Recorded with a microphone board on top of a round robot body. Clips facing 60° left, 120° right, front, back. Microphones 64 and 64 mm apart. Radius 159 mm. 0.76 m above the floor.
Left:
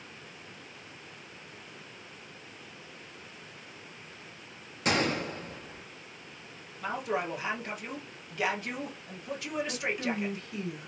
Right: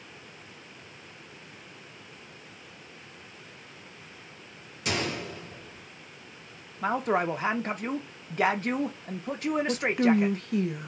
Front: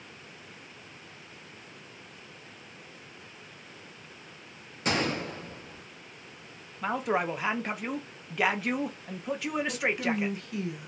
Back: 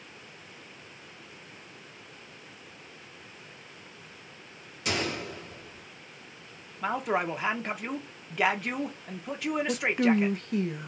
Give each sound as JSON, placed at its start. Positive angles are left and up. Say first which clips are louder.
{"t": 4.8, "sound": "a gunshot", "louder": "left 3 dB, front 2 dB", "azimuth_deg": 35, "distance_m": 0.9}
{"t": 6.8, "sound": "a woman speaking", "louder": "right 6 dB, even", "azimuth_deg": -90, "distance_m": 0.6}
{"t": 9.7, "sound": "a woman speaking", "louder": "right 12 dB, back 7 dB", "azimuth_deg": -140, "distance_m": 0.6}